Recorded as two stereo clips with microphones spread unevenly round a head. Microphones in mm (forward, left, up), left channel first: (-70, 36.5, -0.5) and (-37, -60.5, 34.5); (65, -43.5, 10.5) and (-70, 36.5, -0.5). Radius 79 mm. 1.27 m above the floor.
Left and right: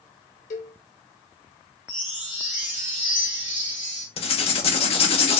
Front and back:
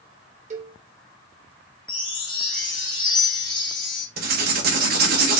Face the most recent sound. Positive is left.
turn(degrees=120)